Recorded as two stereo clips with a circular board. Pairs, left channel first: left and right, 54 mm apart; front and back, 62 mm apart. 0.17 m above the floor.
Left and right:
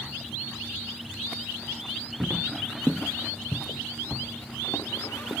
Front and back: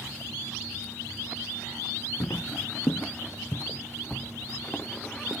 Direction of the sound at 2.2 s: 15° right.